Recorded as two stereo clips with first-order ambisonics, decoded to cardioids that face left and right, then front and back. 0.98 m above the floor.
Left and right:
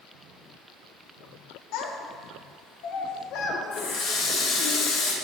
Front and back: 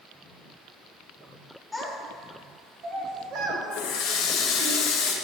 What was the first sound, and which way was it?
A child speaking, 85° left.